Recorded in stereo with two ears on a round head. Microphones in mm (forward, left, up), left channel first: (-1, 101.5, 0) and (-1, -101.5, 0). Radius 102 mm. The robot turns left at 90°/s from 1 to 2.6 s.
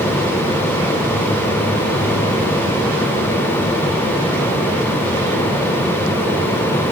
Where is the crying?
No crying in this recording.